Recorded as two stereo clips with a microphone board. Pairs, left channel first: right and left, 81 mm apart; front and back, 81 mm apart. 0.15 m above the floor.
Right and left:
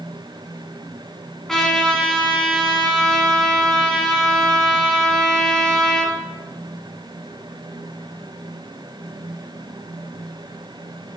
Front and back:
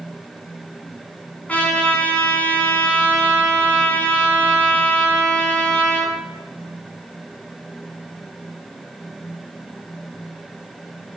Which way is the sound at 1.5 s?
15° right.